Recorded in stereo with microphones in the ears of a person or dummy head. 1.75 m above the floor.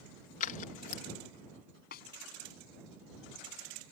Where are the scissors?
45° left (ahead or behind).